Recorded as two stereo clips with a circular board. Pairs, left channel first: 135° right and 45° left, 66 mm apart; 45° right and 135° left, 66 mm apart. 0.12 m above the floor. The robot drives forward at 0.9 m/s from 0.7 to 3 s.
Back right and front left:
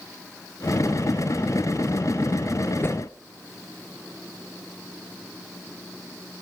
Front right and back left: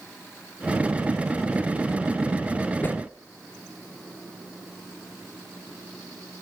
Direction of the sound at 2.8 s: 95° right.